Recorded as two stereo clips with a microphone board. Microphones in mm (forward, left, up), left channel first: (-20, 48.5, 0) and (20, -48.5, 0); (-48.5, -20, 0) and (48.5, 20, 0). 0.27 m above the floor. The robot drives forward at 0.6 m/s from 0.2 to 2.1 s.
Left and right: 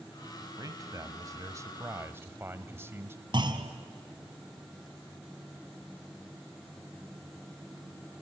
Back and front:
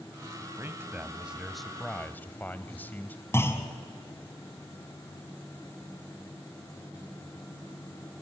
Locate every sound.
0.6 s a man speaking: 30° right, 1.3 m; by 3.2 s 105° right, 1.0 m
3.3 s a clunk: 95° right, 1.7 m